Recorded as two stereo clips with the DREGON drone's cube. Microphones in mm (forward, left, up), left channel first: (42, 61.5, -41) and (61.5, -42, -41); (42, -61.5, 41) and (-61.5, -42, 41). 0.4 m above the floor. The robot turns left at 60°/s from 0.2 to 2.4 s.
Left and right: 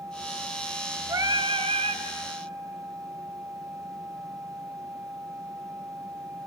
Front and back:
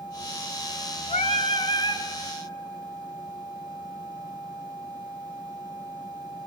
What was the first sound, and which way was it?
Singing, 15° right.